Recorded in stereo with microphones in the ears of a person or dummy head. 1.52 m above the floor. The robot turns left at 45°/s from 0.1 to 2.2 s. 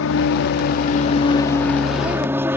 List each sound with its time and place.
0.0 s an aircraft: 80° left; by 2.6 s 15° right